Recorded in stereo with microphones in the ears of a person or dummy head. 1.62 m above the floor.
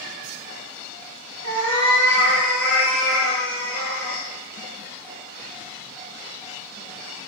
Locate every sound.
1.4 s a cat meowing: 35° right (ahead or behind), 2 m; by 4.2 s 45° right (ahead or behind), 3.5 m